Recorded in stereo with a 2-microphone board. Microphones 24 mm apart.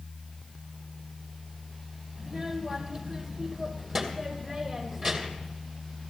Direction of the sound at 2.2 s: 30° right (ahead or behind).